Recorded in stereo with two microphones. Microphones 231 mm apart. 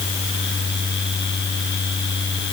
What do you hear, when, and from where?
Only background noise.